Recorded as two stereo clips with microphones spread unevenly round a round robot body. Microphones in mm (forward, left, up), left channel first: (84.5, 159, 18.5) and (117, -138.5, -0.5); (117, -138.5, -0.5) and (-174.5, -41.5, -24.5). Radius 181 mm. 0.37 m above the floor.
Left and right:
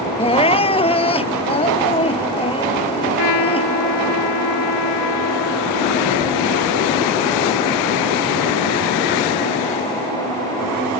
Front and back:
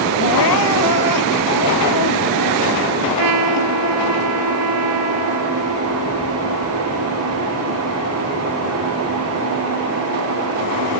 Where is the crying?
25° left.